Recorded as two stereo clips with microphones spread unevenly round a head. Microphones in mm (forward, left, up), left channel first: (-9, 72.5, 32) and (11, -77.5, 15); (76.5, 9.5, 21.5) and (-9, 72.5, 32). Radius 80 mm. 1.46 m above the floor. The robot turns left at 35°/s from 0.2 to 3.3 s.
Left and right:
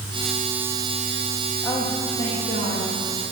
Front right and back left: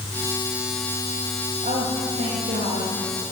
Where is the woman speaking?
175° left, 2.5 m; by 2.9 s 130° left, 2.5 m.